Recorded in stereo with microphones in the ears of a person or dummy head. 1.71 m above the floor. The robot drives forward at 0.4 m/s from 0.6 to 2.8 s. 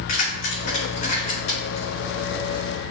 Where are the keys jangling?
45° left (ahead or behind), 1.4 m; by 1.9 s 35° left (ahead or behind), 1.7 m.